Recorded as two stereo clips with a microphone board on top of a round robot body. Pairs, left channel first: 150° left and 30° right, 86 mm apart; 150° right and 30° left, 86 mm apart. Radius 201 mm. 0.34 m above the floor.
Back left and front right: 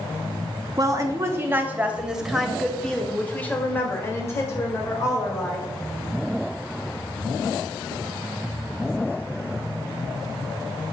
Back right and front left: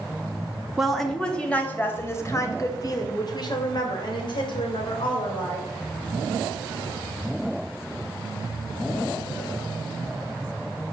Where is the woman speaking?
55° right, 1.7 m; by 5.7 s 160° right, 3 m.